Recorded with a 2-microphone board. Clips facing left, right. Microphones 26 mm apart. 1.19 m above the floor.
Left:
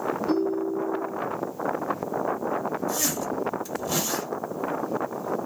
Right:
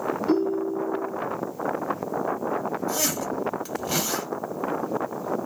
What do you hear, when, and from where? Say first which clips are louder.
0.3 s a ringtone: right 2 dB; 25° right (ahead or behind), 1.1 m
2.9 s a zipper: right 1 dB; 65° right (ahead or behind), 1.2 m